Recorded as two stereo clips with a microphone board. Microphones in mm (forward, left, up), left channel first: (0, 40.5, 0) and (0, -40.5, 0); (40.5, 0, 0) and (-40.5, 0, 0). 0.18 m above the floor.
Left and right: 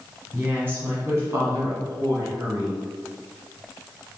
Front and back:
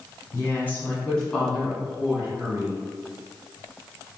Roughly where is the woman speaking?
Ahead right.